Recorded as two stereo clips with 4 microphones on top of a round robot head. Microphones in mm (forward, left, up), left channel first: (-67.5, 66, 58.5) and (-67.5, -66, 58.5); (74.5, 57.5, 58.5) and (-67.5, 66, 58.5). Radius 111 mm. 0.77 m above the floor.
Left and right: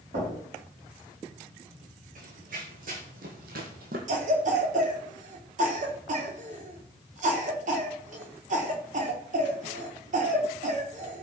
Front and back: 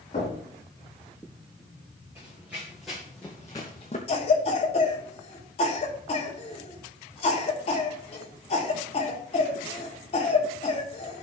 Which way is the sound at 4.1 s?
55° right.